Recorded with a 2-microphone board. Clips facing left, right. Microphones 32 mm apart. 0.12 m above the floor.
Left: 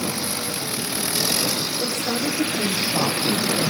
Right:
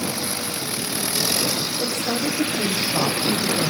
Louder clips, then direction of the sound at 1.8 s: Right 1 dB; 50° right (ahead or behind).